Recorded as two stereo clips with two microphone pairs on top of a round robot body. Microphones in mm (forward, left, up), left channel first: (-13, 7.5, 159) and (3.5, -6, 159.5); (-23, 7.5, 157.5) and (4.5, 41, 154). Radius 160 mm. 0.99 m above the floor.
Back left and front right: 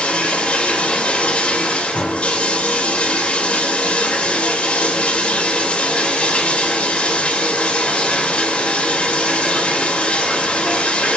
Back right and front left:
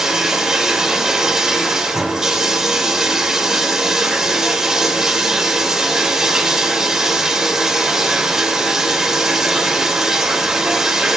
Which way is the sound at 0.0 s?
125° left.